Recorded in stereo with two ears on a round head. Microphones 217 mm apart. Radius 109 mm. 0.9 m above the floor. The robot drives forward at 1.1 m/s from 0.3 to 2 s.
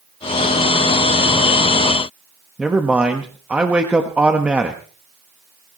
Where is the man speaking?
5° right (ahead or behind), 1.3 m.